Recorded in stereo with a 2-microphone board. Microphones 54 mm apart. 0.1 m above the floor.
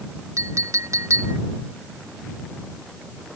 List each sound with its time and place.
0.4 s a clink: 70° right (ahead or behind)